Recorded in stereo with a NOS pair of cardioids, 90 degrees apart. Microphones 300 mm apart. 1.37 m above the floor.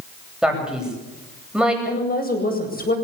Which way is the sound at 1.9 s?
30° left.